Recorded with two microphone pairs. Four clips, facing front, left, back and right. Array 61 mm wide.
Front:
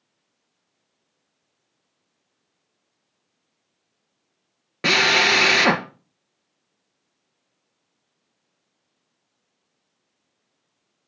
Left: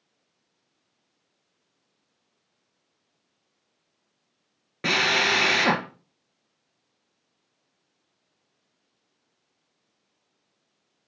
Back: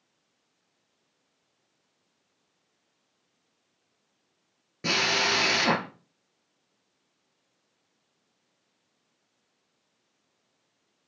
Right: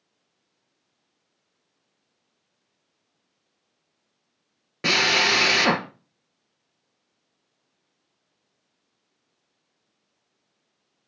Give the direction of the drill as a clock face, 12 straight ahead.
12 o'clock.